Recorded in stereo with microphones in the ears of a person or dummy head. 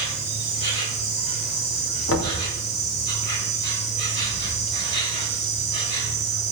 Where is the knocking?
75° left (ahead or behind), 3 m.